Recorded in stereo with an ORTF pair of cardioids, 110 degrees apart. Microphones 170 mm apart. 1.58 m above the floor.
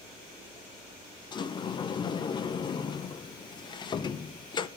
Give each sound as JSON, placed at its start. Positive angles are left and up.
{"t": 1.3, "sound": "a sliding door", "azimuth_deg": 30, "distance_m": 0.6}